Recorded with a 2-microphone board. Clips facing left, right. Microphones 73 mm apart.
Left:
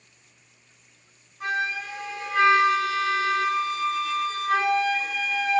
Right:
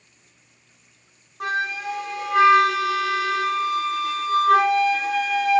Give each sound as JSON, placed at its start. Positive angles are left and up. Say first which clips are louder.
{"t": 1.4, "sound": "a flute", "louder": "right 2 dB", "side_deg": -75, "distance_m": 0.6}